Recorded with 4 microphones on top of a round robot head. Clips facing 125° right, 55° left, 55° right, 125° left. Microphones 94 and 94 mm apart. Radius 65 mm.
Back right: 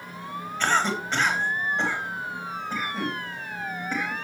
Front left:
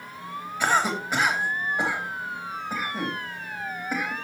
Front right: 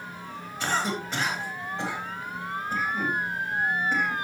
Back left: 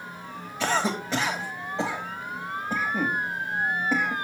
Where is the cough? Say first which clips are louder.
Front left 1 dB, back left 2 dB; 135° left, 3 m.